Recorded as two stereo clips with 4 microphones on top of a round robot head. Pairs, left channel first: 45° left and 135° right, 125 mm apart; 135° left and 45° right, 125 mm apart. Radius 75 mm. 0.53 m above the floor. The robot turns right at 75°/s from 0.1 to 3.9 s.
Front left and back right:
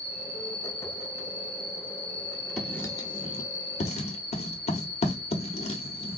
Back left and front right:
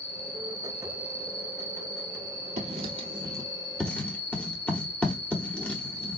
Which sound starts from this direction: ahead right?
Writing, at 2.6 s.